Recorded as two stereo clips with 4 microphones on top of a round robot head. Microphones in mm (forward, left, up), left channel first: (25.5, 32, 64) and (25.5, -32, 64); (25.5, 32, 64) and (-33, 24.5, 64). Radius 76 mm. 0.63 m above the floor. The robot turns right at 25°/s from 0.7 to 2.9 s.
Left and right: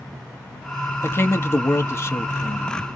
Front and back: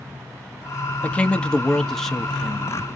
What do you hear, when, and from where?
1.0 s a man speaking: 60° left, 0.8 m; by 2.8 s 105° left, 0.8 m